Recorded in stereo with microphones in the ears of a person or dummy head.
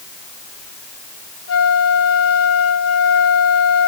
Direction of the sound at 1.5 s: 75° left (ahead or behind).